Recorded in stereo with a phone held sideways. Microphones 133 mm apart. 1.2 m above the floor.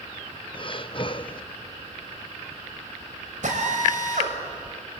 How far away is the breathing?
About 0.6 m.